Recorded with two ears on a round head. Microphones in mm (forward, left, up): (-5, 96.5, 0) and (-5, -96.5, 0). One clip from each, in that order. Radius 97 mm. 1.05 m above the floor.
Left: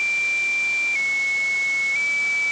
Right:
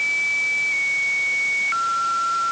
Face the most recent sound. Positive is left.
No sound to turn to.